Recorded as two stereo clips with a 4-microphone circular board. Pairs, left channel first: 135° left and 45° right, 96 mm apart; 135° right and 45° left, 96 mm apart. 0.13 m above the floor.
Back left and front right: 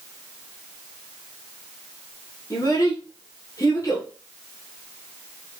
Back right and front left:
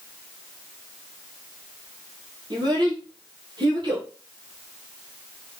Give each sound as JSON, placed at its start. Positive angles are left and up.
{"t": 2.5, "sound": "a child speaking", "azimuth_deg": 80, "distance_m": 1.9}